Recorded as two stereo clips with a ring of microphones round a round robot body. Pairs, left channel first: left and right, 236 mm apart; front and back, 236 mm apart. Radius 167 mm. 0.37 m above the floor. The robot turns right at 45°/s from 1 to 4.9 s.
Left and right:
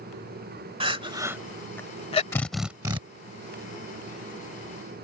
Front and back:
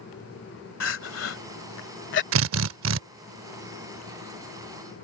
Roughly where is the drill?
Behind.